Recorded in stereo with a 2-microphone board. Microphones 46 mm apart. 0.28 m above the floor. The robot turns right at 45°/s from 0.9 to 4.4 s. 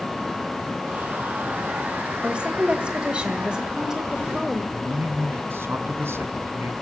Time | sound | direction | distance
2.2 | a woman speaking | 20° right (ahead or behind) | 1.3 m
4.7 | a man speaking | 65° right (ahead or behind) | 2.5 m